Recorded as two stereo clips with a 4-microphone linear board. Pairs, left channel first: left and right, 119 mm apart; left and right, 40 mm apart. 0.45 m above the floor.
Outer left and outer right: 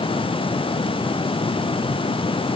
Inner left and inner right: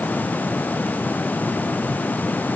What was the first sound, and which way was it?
Only background noise.